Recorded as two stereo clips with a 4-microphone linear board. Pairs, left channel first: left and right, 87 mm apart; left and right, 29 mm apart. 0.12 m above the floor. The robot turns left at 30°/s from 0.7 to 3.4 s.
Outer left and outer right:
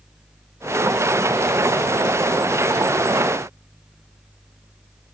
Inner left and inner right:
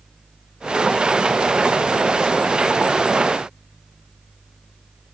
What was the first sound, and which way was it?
Only background noise.